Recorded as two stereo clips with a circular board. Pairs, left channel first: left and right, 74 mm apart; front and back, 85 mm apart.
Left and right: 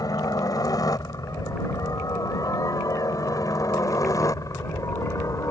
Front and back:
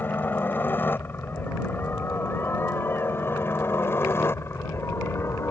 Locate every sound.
0.0 s a helicopter: 65° left; by 5.5 s 55° left